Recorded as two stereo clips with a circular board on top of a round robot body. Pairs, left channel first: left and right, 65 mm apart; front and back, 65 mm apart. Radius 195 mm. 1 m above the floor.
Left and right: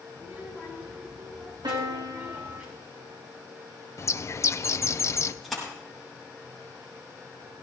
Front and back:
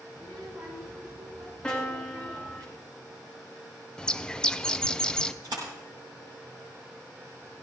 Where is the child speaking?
155° right, 9 m.